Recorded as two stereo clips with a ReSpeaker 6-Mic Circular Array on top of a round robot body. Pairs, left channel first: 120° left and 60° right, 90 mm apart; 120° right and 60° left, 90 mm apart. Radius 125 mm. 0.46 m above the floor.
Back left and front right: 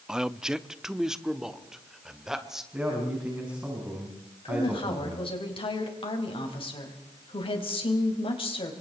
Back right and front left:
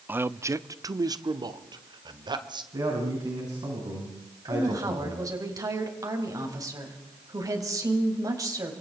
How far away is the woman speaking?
About 4 m.